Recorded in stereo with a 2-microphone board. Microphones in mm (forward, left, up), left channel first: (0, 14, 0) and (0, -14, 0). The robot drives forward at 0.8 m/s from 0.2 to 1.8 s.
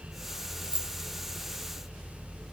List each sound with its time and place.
0.6 s keys jangling: 35° right (ahead or behind), 0.7 m; by 0.9 s 40° right (ahead or behind), 0.7 m